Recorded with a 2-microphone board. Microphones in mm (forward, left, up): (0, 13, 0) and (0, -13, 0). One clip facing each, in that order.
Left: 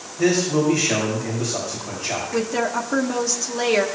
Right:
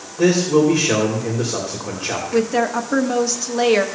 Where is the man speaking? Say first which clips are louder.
Right 4 dB; 50° right (ahead or behind), 3 m.